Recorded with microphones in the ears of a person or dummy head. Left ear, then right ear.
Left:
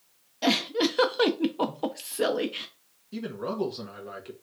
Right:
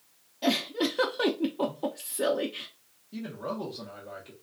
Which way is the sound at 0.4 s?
20° left (ahead or behind).